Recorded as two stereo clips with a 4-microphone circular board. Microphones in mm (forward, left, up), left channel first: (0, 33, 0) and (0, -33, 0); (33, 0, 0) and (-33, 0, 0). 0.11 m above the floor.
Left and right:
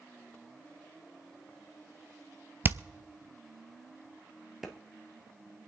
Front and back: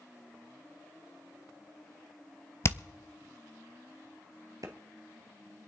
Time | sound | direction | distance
2.6 | hammering | 35° right | 0.7 m
4.6 | a clap | 175° right | 1.7 m